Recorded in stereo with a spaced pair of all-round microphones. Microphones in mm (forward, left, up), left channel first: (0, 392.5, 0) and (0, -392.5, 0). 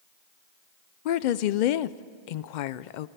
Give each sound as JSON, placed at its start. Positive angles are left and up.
{"t": 1.1, "sound": "a woman speaking", "side_deg": 75, "distance_m": 0.6}